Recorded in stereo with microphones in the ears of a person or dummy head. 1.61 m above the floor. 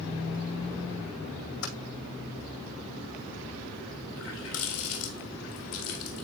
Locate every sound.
1.6 s typing on a keyboard: 70° left (ahead or behind), 4 m
4.2 s a running tap: 75° left (ahead or behind), 2.5 m